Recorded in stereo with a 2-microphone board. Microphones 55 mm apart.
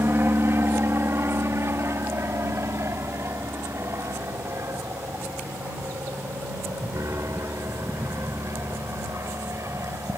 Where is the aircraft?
45° right (ahead or behind); by 10.2 s 60° right (ahead or behind).